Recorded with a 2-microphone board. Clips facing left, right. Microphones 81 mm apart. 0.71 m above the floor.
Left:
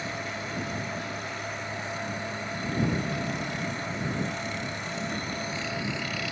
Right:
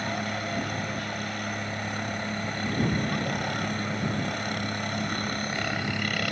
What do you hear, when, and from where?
0.0 s a helicopter: 65° right (ahead or behind)